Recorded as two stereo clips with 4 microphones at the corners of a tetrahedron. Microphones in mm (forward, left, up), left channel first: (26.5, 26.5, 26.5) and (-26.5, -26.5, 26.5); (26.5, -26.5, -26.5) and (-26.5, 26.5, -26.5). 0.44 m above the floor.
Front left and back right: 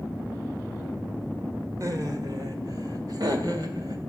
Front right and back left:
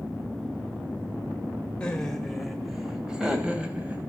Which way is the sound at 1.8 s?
115° right.